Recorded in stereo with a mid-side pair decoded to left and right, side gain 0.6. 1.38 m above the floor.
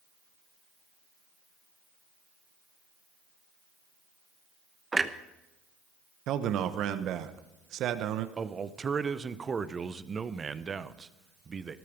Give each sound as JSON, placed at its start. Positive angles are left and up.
{"t": 4.9, "sound": "a clunk", "azimuth_deg": -15, "distance_m": 1.0}
{"t": 6.3, "sound": "a man speaking", "azimuth_deg": -60, "distance_m": 1.1}
{"t": 8.4, "sound": "a man speaking", "azimuth_deg": -25, "distance_m": 1.0}